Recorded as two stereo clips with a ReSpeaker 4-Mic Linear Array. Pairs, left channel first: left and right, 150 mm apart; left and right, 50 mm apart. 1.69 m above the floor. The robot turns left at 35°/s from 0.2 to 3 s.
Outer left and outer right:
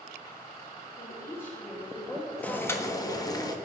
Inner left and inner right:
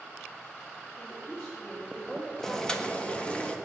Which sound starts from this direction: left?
A woman speaking, at 1.0 s.